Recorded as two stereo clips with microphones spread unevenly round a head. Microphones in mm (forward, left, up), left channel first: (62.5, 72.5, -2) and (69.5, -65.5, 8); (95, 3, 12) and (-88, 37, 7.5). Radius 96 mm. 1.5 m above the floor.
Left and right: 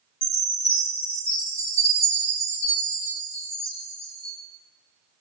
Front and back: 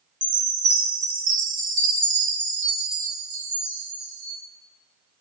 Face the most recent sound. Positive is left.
turn(degrees=130)